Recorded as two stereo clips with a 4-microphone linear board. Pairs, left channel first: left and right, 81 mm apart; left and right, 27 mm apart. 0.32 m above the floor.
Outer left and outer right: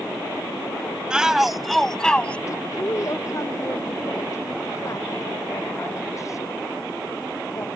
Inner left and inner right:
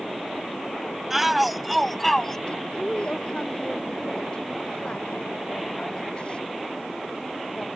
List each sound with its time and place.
1.1 s a shout: 10° right (ahead or behind); by 2.4 s 15° left (ahead or behind)
2.5 s a woman speaking: 40° left (ahead or behind)